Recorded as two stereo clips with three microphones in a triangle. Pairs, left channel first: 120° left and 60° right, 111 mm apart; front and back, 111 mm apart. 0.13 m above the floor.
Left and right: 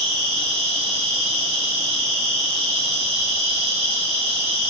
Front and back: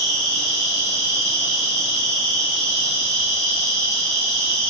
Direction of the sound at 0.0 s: 50° right.